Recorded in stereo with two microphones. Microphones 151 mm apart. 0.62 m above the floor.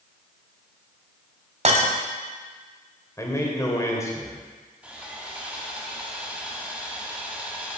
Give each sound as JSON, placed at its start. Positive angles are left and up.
{"t": 1.6, "sound": "breaking glass", "side_deg": -50, "distance_m": 1.1}
{"t": 3.2, "sound": "a man speaking", "side_deg": 20, "distance_m": 2.0}
{"t": 4.8, "sound": "sawing", "side_deg": -10, "distance_m": 1.6}